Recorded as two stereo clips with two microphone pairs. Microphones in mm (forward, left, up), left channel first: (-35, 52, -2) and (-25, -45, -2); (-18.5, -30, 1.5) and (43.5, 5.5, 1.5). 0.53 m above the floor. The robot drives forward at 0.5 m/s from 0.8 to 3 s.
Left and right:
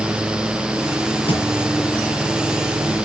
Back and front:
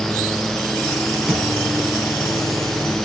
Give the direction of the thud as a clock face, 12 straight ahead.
8 o'clock.